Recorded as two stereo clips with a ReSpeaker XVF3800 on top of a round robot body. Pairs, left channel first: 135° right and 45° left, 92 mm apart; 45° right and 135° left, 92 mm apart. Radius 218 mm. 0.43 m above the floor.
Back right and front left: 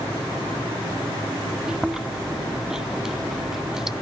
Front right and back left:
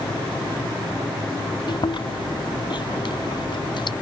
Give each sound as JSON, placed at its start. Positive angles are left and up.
{"t": 1.7, "sound": "chewing", "azimuth_deg": -40}